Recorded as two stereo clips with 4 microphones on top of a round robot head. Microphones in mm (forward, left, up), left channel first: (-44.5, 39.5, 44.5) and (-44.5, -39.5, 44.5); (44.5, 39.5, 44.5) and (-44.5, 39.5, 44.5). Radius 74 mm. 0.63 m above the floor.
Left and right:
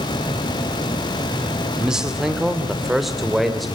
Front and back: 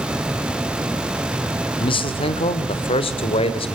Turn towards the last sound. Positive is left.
turn(degrees=0)